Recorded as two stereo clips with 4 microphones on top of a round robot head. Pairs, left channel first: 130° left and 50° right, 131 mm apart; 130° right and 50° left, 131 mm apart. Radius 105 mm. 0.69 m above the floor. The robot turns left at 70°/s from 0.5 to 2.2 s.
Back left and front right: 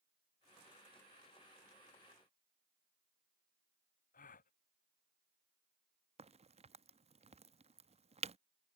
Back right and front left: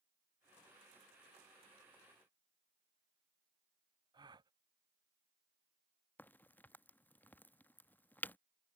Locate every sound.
4.1 s a gasp: 110° left
6.2 s a crack: 55° right